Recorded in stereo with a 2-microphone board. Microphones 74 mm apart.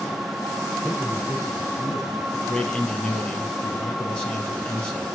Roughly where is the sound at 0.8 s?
Centre.